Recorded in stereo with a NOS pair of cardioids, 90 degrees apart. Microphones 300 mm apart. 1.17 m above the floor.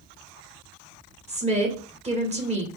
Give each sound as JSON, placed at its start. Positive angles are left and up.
{"t": 1.3, "sound": "a woman speaking", "azimuth_deg": -20, "distance_m": 1.7}